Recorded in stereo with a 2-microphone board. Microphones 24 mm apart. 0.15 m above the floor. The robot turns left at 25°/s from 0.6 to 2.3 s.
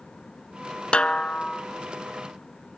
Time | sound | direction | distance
0.9 | a snare drum | 50° left (ahead or behind) | 0.7 m